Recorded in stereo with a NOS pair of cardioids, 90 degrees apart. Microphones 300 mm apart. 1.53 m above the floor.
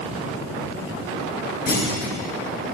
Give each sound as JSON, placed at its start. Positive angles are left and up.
{"t": 1.7, "sound": "a clunk", "azimuth_deg": 30, "distance_m": 1.7}